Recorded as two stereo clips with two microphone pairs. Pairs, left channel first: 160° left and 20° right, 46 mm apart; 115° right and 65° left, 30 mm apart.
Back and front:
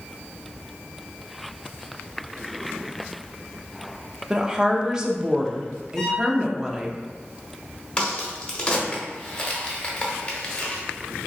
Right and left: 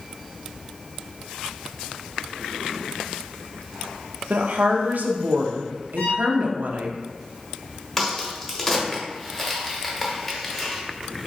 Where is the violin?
125° right, 0.9 m.